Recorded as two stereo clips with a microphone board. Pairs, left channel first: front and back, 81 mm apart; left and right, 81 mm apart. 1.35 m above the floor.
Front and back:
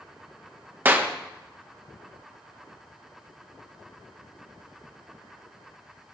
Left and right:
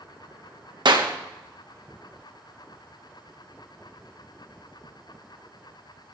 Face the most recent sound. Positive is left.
turn(degrees=-115)